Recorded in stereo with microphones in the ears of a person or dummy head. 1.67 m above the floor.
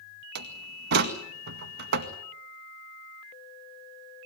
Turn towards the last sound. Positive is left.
turn(degrees=-60)  # may be behind; listen again after turning